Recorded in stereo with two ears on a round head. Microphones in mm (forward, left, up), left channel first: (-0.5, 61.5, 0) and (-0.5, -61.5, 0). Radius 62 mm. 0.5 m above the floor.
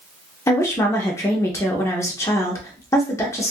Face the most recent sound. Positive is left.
turn(degrees=20)  # may be behind; listen again after turning